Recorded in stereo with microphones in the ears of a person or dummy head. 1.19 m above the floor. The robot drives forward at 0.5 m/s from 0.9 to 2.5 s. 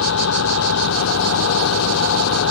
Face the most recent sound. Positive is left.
turn(degrees=85)